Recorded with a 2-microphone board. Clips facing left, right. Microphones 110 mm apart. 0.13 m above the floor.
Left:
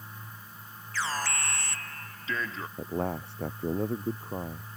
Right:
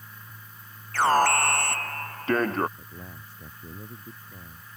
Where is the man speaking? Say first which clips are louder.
Left 13 dB; 75° left (ahead or behind).